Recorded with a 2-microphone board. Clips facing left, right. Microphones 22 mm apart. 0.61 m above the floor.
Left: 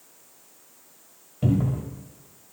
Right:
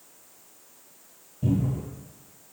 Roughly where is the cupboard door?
Left.